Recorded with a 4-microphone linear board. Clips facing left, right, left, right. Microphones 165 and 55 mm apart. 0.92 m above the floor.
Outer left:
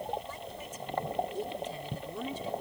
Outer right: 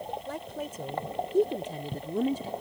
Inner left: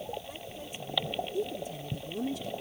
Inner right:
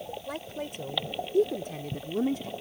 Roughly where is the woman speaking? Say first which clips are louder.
Outer right 6 dB, inner right 6 dB; right.